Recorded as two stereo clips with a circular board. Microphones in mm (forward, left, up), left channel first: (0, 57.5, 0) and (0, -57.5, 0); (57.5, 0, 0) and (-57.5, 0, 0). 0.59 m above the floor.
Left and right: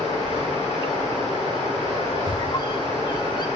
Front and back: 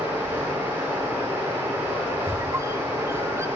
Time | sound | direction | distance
0.0 | running water | 110° left | 7 m
2.3 | a squeak | 125° left | 0.6 m